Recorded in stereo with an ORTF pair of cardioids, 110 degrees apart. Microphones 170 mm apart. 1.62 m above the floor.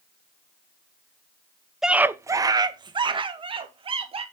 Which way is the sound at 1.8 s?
Straight ahead.